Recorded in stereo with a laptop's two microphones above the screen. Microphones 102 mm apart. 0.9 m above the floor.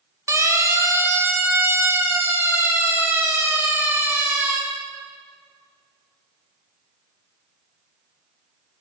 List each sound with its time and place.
0.3 s a siren: 30° right (ahead or behind), 4 m; by 4.6 s 20° right (ahead or behind), 9 m